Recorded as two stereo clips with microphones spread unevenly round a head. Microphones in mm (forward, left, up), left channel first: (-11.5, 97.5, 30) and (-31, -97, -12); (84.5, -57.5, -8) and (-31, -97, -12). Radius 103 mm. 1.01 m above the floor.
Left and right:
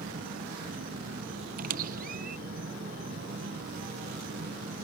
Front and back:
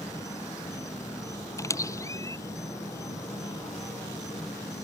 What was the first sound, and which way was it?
An insect, 45° right.